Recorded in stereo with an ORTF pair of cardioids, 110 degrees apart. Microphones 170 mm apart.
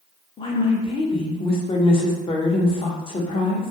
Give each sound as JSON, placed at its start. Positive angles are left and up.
{"t": 0.4, "sound": "a woman speaking", "azimuth_deg": 30, "distance_m": 0.7}